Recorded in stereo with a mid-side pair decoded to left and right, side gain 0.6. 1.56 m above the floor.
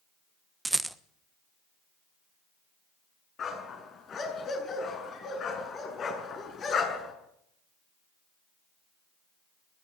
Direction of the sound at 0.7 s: 10° right.